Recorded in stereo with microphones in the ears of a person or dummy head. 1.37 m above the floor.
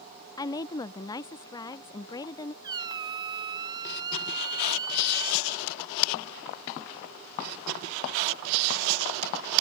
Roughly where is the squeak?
Right.